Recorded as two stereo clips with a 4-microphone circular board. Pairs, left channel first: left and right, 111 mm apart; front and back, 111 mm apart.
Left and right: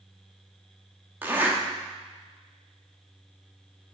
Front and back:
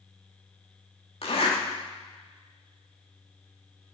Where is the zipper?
20° right, 1.9 m.